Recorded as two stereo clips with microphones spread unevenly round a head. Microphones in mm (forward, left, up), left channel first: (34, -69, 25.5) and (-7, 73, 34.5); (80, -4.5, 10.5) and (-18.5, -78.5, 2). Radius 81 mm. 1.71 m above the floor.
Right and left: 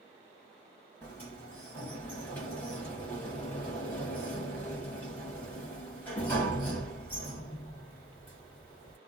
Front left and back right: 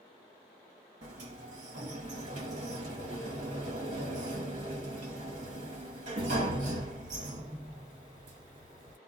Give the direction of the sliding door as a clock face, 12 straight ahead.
5 o'clock.